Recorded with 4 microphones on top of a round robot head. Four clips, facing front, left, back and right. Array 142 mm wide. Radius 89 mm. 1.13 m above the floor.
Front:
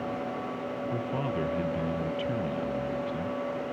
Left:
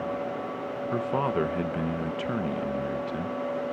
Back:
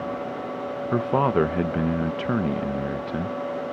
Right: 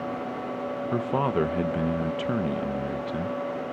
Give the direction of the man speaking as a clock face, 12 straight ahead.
6 o'clock.